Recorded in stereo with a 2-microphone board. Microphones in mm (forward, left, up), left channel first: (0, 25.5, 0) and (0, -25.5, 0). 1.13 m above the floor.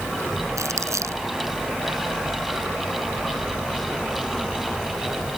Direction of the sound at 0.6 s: 80° right.